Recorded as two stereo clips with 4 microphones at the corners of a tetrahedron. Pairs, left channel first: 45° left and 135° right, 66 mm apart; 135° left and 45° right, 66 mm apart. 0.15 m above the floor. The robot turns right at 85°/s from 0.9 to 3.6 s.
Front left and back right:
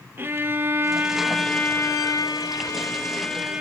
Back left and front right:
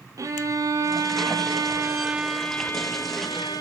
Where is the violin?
80° right, 1.0 m; by 3.6 s 150° left, 1.0 m.